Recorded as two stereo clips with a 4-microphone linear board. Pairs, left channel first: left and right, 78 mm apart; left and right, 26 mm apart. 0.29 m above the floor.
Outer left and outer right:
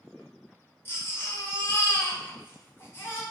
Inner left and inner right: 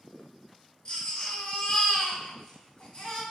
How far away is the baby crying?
About 0.8 m.